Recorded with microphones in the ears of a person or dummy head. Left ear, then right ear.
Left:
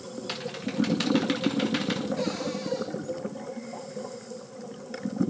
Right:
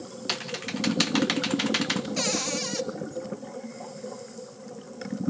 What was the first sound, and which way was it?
Typing on a keyboard, 30° right (ahead or behind).